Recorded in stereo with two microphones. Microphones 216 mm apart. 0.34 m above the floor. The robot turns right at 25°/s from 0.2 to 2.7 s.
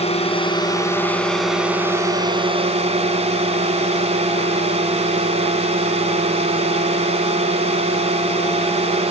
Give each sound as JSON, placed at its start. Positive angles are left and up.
{"t": 0.0, "sound": "a drone", "azimuth_deg": 150}